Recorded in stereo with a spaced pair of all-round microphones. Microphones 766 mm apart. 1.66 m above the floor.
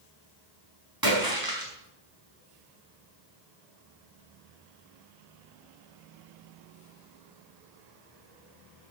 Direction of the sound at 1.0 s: 25° right (ahead or behind).